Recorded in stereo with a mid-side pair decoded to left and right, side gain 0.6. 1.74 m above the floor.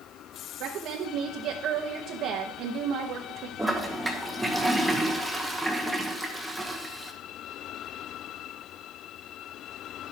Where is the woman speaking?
60° right, 1.2 m.